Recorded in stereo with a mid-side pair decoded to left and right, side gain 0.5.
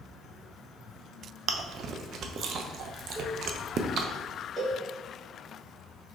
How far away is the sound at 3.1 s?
About 1.9 m.